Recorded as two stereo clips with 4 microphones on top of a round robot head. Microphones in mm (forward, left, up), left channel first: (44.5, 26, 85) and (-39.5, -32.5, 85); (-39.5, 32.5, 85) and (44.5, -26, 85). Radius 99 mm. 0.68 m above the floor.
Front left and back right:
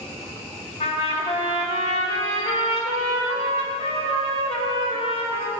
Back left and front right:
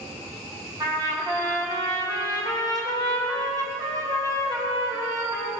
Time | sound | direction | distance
0.8 | a trumpet | 20° left | 3.5 m